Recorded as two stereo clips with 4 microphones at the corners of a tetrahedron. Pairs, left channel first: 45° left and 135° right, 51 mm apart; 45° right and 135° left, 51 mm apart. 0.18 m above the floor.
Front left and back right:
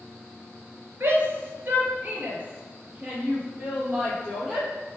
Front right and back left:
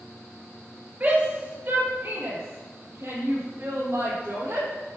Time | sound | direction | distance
1.0 | a shout | 175° right | 3 m